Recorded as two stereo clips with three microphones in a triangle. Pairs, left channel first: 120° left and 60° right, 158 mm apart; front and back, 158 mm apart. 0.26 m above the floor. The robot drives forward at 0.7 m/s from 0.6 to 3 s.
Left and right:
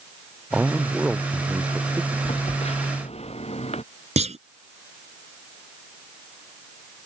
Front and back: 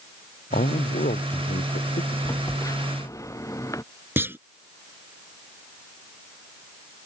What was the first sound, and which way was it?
A man speaking, 25° left.